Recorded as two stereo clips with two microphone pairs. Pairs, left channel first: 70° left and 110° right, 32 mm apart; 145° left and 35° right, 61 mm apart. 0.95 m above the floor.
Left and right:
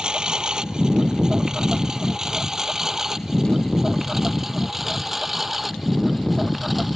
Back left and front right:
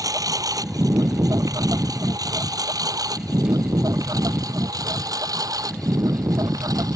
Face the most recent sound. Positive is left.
turn(degrees=-25)